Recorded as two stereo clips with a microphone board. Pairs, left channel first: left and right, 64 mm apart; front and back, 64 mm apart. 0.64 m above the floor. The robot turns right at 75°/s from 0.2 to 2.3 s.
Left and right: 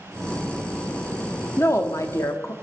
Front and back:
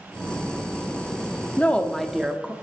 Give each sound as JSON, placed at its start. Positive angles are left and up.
{"t": 1.6, "sound": "a woman speaking", "azimuth_deg": 50, "distance_m": 1.0}